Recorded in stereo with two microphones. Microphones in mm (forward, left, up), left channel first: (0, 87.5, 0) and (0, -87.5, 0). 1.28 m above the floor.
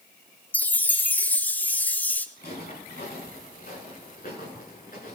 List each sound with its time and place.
0.5 s a chime: 10° left (ahead or behind), 0.6 m
2.4 s footsteps: 60° left (ahead or behind), 8 m; by 5.2 s 55° left (ahead or behind), 10.5 m